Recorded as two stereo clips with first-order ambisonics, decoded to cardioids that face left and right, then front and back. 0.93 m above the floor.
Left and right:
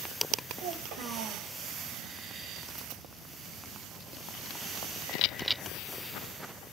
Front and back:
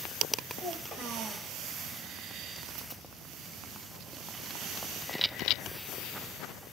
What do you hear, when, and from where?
0.6 s a child speaking: 105° right, 1.4 m